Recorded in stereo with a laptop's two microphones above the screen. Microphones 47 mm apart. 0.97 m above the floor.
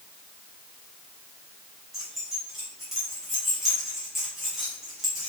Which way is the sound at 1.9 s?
5° right (ahead or behind).